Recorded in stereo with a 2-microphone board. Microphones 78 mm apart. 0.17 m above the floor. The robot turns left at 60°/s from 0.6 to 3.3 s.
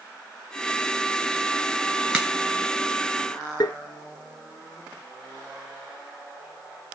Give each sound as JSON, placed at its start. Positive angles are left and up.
{"t": 2.1, "sound": "a crack", "side_deg": -10, "distance_m": 2.0}
{"t": 3.6, "sound": "tapping", "side_deg": 60, "distance_m": 0.9}